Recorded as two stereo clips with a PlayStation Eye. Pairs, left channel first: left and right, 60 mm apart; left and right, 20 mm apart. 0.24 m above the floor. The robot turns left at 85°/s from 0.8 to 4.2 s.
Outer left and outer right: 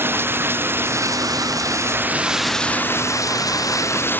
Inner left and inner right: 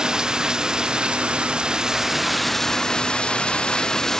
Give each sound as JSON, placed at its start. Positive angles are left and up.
{"t": 0.0, "sound": "running water", "azimuth_deg": -40}